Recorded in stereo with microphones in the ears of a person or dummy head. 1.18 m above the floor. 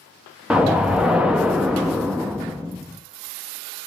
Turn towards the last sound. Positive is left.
turn(degrees=-5)  # may be behind; listen again after turning